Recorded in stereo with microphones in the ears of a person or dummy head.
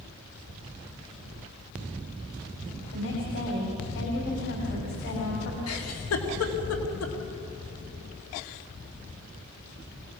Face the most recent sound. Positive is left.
turn(degrees=90)